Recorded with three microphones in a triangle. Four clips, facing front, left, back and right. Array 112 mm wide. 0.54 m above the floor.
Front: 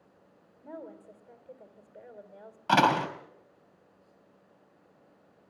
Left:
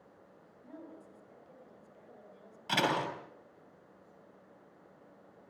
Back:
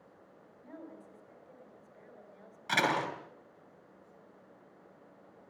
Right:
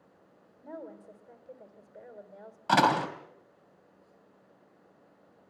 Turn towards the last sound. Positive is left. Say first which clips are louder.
# right 8 dB, front 7 dB
turn(degrees=-40)